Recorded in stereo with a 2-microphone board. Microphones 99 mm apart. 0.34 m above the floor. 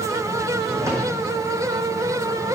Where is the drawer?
30° right (ahead or behind), 5.5 m.